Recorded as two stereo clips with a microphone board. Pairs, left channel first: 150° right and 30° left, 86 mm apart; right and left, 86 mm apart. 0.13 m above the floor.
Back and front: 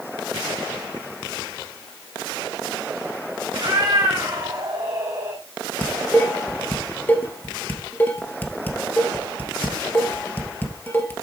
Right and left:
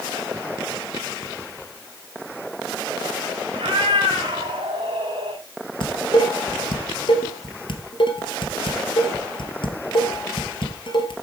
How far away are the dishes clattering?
About 2 m.